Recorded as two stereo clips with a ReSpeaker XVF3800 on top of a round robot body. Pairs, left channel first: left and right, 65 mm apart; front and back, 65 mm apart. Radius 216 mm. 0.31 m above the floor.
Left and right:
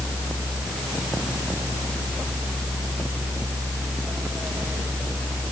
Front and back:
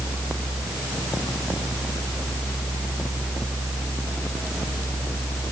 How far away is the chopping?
No chopping in this recording.